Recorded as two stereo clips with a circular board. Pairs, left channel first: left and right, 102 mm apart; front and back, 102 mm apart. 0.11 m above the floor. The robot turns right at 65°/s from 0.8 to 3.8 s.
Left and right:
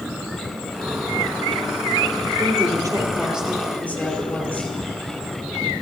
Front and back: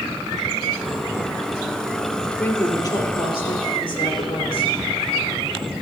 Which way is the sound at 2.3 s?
80° right.